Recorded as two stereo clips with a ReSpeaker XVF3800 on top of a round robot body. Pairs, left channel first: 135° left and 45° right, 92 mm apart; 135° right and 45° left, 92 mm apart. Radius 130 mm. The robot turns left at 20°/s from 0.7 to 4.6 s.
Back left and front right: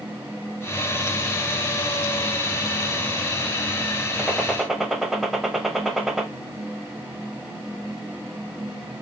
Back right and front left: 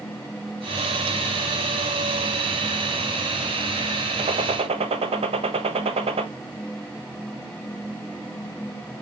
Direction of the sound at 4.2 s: 50° left.